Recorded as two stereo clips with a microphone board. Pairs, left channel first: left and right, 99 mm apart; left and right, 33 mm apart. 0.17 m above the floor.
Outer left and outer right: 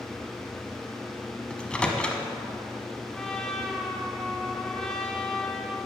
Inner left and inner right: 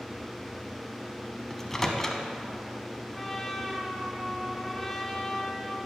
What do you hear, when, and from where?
1.5 s a microwave: 10° left (ahead or behind), 0.8 m
3.1 s a trumpet: 5° left (ahead or behind), 1.0 m